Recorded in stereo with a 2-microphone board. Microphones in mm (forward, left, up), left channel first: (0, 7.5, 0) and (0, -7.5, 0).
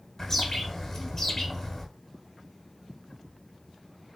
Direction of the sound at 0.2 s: 30° left (ahead or behind).